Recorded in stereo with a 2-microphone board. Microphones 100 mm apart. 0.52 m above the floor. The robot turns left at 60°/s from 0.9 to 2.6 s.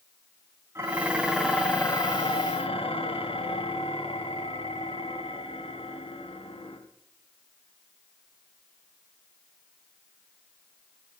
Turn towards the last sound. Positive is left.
turn(degrees=105)